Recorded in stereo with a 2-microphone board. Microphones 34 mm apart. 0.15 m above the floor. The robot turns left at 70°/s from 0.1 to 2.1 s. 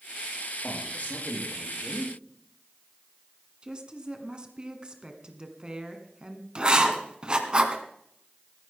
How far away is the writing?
About 1.8 m.